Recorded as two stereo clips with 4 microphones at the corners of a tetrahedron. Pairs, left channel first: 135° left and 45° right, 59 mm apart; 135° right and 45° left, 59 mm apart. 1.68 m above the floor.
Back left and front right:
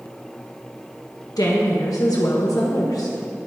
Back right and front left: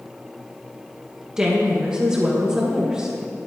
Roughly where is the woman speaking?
Behind left.